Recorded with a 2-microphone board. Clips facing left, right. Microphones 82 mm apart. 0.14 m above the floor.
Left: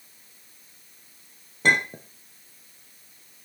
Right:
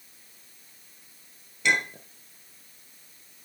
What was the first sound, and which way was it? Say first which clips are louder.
A clink: left 4 dB; 40° left (ahead or behind).